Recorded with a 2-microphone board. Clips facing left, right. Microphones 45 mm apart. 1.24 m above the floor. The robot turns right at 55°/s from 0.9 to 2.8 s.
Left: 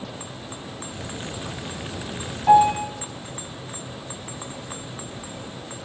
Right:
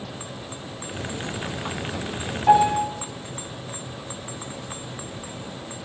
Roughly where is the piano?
Centre.